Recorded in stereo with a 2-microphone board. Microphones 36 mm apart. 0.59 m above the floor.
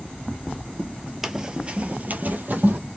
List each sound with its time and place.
1.2 s running footsteps: 5° right (ahead or behind), 0.6 m; by 2.8 s 50° right (ahead or behind), 1.0 m